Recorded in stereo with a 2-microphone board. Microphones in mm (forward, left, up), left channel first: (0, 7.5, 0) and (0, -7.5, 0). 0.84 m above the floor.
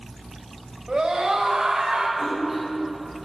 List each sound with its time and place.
0.9 s a scream: 65° right (ahead or behind), 4.5 m; by 2.1 s 75° right (ahead or behind), 4 m
2.2 s a splash: 20° right (ahead or behind), 5.5 m